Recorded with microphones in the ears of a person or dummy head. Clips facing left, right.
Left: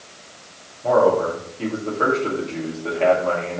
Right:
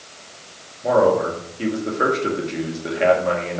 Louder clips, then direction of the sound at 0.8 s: Even; 20° right (ahead or behind).